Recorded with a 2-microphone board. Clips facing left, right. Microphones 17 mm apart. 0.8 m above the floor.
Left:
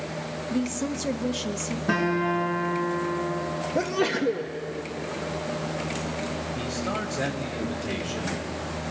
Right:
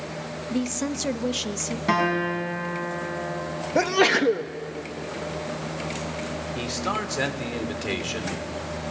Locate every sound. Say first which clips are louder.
0.5 s a woman speaking: right 1 dB; 20° right (ahead or behind), 0.8 m
1.9 s a guitar: right 1 dB; 50° right (ahead or behind), 5 m
3.8 s a sneeze: right 6 dB; 35° right (ahead or behind), 0.6 m
6.5 s a man speaking: right 4 dB; 50° right (ahead or behind), 2.0 m